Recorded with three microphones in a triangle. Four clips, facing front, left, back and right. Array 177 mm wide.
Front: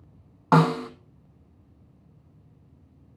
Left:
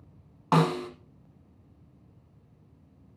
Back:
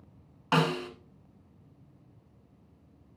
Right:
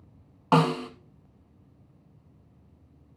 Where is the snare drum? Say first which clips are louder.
Right 2 dB, front 7 dB; 15° right, 1.4 m.